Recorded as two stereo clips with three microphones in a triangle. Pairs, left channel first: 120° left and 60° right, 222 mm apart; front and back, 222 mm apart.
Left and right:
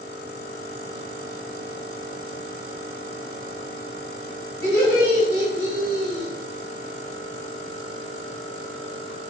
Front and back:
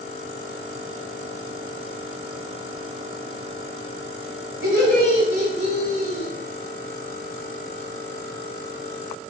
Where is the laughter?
155° left, 3.5 m; by 6.3 s 125° left, 3 m.